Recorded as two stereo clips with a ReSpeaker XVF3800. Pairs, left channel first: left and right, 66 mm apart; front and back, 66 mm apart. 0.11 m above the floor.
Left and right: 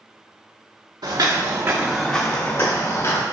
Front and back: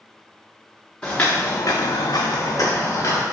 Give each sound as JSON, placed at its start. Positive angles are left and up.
{"t": 1.0, "sound": "footsteps", "azimuth_deg": -75, "distance_m": 0.9}